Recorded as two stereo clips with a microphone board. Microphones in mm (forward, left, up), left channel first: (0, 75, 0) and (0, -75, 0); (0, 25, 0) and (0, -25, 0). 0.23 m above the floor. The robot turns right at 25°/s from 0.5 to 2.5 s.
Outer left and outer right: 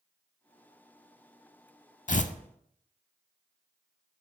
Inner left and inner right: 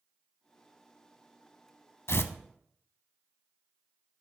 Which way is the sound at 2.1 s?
55° left (ahead or behind).